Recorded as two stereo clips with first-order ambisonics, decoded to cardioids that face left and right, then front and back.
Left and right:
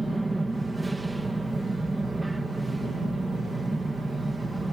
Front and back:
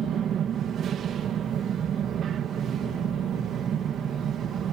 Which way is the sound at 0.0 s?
165° right.